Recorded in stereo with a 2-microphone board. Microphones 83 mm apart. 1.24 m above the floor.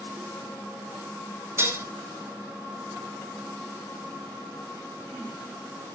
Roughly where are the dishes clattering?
Right.